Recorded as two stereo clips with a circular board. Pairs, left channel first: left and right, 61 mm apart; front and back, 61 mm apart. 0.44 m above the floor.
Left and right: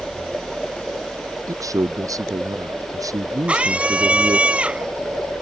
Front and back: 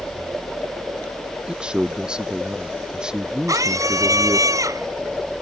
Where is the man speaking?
105° right; by 4.5 s 100° right.